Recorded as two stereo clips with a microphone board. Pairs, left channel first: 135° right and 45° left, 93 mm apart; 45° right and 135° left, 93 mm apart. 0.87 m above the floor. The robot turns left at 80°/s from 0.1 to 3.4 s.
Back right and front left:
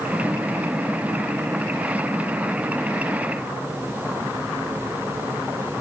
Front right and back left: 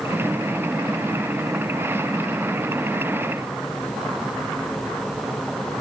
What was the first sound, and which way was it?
Only background noise.